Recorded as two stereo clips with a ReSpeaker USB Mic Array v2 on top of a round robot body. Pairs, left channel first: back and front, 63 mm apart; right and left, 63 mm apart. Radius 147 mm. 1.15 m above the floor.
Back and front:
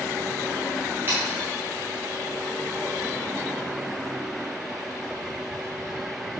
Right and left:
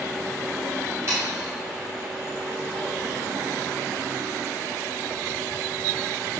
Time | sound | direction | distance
1.1 | sawing | 50° left | 0.9 m